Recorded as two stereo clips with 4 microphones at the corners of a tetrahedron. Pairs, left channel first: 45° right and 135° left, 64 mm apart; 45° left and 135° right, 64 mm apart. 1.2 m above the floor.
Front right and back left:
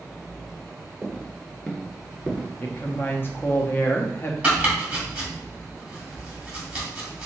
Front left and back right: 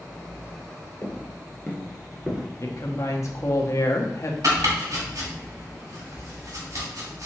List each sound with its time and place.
1.0 s footsteps: 30° left, 1.5 m; by 2.5 s 150° right, 1.2 m
2.6 s a woman speaking: 10° left, 0.9 m
4.4 s chopping: 155° right, 2.5 m